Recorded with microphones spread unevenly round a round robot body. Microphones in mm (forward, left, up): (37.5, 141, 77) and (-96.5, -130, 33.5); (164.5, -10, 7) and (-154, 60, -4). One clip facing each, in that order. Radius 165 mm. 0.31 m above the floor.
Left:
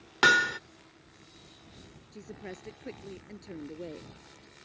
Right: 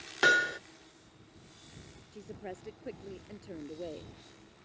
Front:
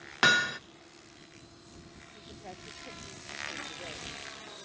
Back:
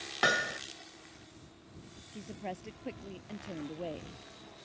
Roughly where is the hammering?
Ahead.